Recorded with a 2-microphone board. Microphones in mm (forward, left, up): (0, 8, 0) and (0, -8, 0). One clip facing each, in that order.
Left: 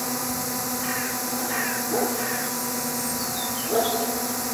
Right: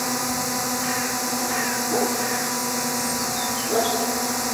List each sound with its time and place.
0.0 s a drone: 20° right (ahead or behind)